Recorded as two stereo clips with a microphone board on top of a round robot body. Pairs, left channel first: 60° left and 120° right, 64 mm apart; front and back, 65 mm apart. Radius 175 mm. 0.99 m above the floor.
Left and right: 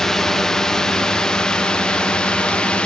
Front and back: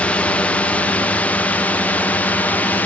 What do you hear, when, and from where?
0.0 s a drone: 10° right; by 2.9 s 10° left